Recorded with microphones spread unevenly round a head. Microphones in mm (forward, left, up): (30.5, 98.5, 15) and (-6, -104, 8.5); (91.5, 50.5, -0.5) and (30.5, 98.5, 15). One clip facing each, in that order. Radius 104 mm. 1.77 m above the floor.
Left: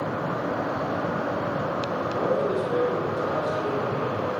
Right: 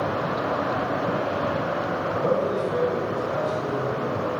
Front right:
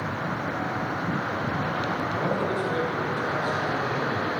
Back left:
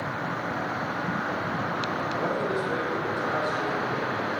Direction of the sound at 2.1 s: 70° left.